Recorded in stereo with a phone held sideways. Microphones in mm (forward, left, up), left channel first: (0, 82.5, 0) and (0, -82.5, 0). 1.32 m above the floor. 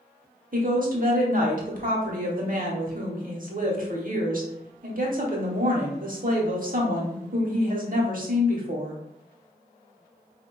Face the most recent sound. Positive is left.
turn(degrees=-55)  # may be behind; listen again after turning